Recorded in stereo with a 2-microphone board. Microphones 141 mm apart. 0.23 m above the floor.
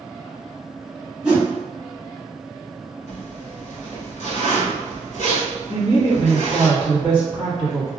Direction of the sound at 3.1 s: 70° left (ahead or behind).